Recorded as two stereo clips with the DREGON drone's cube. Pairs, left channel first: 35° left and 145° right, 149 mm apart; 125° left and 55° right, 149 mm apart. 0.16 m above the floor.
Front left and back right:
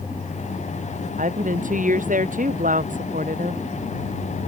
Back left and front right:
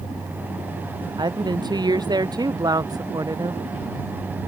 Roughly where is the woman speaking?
Behind right.